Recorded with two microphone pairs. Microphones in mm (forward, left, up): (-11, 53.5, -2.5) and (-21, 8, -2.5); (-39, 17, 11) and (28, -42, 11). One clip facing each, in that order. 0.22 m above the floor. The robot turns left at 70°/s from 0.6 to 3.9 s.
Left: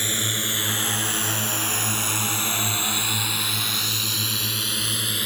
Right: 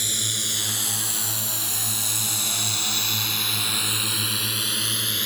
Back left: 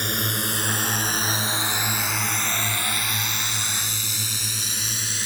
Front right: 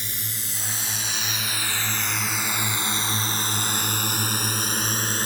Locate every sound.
0.0 s a drone: 125° left; by 5.3 s 5° right